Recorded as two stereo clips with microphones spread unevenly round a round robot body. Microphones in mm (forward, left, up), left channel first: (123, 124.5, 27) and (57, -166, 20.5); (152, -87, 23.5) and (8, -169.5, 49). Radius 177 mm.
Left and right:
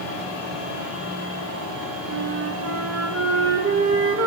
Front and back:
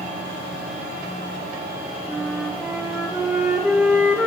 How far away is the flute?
About 1.3 m.